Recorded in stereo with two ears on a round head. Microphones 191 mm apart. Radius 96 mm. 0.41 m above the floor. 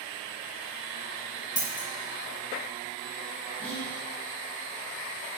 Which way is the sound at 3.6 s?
10° left (ahead or behind).